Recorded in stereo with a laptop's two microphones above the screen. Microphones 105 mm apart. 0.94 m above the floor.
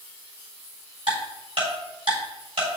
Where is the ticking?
65° right (ahead or behind), 4 m.